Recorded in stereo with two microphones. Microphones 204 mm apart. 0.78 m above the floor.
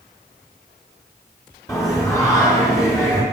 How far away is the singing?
About 2.5 m.